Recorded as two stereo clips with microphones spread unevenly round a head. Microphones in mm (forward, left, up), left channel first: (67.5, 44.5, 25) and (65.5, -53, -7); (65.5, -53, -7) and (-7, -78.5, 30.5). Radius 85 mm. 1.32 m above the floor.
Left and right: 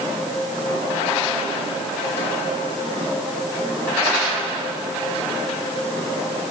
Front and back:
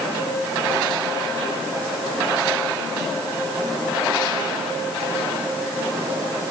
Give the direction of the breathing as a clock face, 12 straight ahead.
No breathing in this recording.